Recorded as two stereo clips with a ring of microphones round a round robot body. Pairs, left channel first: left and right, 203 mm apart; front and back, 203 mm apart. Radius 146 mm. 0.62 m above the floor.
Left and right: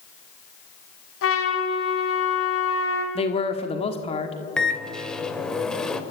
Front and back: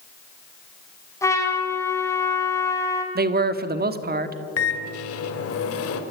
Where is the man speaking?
150° left, 1.5 m.